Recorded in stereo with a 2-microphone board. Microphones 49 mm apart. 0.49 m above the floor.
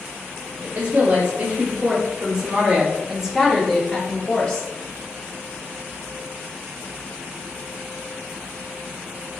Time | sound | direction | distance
0.6 | a woman speaking | 50° right (ahead or behind) | 2.0 m